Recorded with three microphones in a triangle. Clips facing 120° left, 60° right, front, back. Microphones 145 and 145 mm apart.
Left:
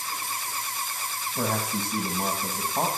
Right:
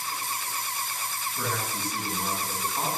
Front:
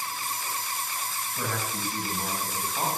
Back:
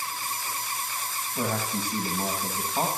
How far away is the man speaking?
About 3 m.